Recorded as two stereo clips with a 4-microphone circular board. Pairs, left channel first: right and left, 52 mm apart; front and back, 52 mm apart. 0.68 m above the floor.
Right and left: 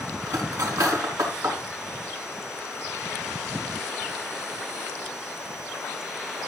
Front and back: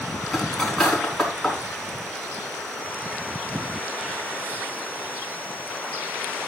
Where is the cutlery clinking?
85° left, 4.5 m.